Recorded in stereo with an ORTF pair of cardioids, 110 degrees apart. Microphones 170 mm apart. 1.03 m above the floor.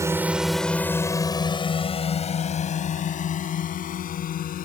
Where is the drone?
15° right; by 4.7 s 55° left.